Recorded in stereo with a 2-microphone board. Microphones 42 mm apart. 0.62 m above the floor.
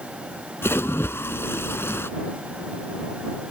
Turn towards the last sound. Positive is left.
turn(degrees=75)  # may be behind; listen again after turning